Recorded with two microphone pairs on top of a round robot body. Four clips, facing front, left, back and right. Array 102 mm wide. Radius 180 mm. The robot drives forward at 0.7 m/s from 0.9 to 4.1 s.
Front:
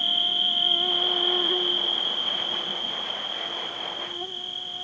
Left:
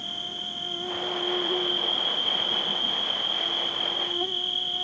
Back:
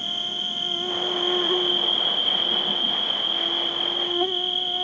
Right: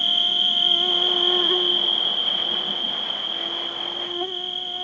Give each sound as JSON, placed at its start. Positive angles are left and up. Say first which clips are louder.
{"t": 0.0, "sound": "an insect", "louder": "right 8 dB, front 2 dB", "azimuth_deg": -100}